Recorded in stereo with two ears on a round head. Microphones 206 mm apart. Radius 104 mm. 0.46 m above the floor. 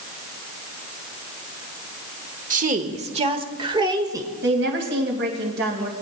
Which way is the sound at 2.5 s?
35° right (ahead or behind).